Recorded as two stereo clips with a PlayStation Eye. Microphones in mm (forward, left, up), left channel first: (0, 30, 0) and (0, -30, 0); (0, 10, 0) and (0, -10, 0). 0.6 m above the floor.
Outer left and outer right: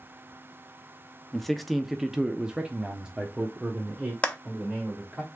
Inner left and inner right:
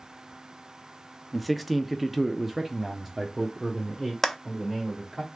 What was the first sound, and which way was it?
A man speaking, 5° left (ahead or behind).